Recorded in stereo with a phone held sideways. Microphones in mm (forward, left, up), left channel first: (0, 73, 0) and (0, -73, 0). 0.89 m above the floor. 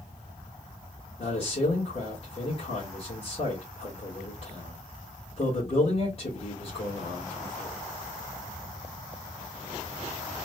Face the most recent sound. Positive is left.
turn(degrees=40)  # may be behind; listen again after turning